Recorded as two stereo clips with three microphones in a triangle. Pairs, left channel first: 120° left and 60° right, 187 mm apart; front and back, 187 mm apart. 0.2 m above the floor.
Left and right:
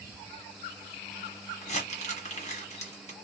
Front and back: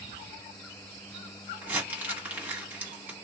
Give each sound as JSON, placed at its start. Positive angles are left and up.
{"t": 1.6, "sound": "crumpling", "azimuth_deg": 105, "distance_m": 1.3}